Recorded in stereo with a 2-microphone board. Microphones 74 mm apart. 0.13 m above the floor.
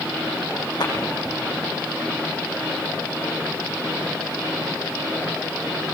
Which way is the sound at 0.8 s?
65° left (ahead or behind).